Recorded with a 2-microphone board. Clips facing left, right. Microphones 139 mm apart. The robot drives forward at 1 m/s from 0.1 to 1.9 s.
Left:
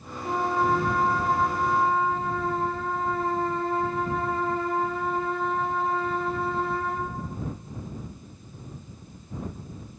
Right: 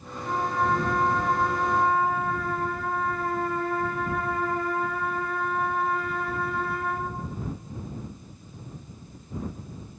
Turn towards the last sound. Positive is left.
turn(degrees=25)  # may be behind; listen again after turning